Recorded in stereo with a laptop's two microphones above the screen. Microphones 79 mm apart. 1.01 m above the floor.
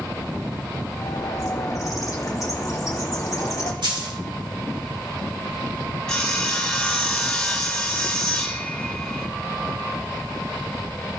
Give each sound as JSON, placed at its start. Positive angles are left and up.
{"t": 0.9, "sound": "a bird", "side_deg": 45, "distance_m": 1.4}
{"t": 3.8, "sound": "a dropped coin", "side_deg": -80, "distance_m": 2.0}
{"t": 6.1, "sound": "sawing", "side_deg": 10, "distance_m": 2.0}